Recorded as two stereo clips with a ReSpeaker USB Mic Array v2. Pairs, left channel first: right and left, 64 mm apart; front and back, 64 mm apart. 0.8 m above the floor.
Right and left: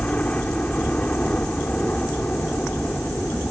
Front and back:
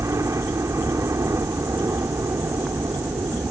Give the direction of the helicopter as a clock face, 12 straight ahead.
5 o'clock.